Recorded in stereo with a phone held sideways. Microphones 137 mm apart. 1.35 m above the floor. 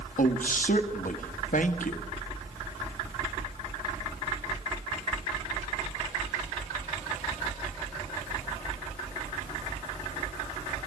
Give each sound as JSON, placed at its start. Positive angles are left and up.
{"t": 0.2, "sound": "a woman speaking", "side_deg": 75, "distance_m": 1.7}